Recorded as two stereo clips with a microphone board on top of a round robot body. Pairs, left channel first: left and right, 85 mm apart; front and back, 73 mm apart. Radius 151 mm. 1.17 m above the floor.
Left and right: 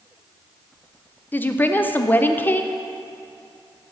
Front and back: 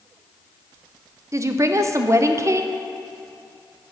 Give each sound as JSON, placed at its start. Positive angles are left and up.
{"t": 1.3, "sound": "a woman speaking", "azimuth_deg": 150, "distance_m": 0.6}